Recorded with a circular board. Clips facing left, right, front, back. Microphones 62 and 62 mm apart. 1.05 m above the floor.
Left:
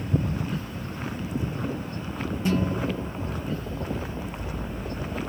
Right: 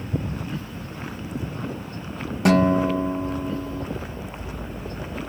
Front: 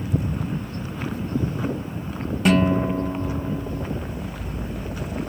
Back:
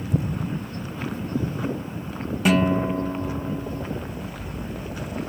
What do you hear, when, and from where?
0.1 s an explosion: 175° left
2.5 s a guitar: 95° right